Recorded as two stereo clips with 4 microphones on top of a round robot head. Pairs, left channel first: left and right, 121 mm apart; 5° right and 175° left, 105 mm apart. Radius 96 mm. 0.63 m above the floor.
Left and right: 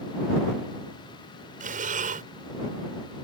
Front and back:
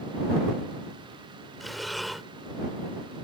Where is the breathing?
95° right.